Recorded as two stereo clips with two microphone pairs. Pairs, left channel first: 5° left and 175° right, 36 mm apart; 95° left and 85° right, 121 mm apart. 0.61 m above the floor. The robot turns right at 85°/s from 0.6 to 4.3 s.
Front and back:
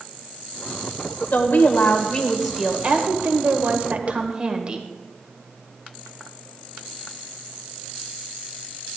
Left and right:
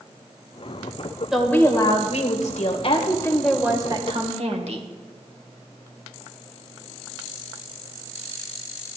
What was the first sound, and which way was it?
A woman speaking, straight ahead.